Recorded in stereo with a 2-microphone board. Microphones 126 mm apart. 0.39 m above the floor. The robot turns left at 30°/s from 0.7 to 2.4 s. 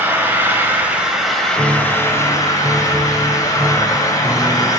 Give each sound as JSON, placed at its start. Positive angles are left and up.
{"t": 0.0, "sound": "an engine running", "azimuth_deg": -165, "distance_m": 1.3}
{"t": 1.6, "sound": "a piano", "side_deg": -20, "distance_m": 0.7}